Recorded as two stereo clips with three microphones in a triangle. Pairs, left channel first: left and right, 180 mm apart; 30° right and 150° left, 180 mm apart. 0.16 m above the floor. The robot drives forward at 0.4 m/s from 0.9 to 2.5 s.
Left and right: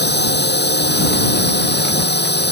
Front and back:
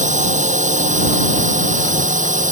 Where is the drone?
105° left.